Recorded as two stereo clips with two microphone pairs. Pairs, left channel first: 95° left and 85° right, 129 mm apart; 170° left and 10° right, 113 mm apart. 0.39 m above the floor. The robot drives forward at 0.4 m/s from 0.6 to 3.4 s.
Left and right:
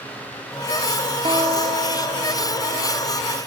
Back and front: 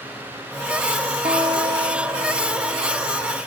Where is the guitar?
40° right, 1.9 m; by 3.2 s 60° right, 1.4 m.